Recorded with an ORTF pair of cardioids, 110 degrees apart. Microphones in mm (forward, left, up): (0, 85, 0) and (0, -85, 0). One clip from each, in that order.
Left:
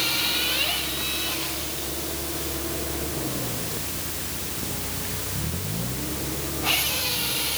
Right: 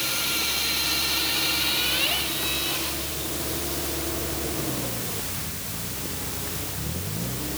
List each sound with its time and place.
Only background noise.